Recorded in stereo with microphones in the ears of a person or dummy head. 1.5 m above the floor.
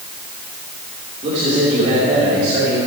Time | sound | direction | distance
1.2 | a man speaking | 35° right (ahead or behind) | 4.5 m